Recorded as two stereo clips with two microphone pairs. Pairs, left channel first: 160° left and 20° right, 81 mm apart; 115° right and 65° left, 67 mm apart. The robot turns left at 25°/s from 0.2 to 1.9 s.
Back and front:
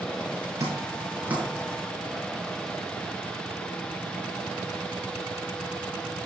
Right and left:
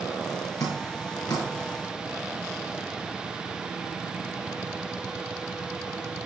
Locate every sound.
0.6 s dripping: 75° right, 7 m; by 1.4 s 95° right, 7 m